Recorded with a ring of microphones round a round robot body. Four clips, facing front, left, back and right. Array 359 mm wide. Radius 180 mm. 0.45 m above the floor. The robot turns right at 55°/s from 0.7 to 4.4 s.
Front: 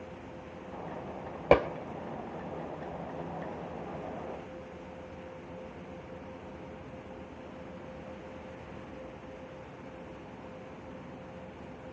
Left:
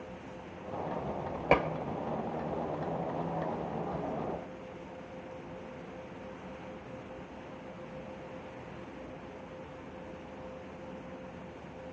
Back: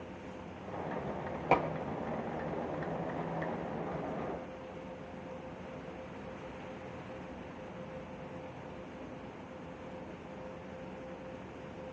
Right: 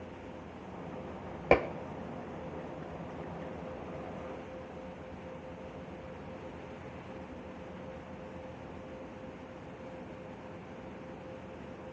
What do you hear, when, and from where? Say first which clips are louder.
1.5 s dishes clattering: right 1 dB, front 6 dB; 35° right, 0.8 m; by 1.7 s 25° right, 0.8 m